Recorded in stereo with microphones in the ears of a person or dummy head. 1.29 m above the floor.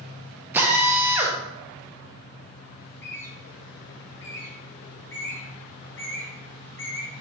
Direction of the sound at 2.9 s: 10° left (ahead or behind).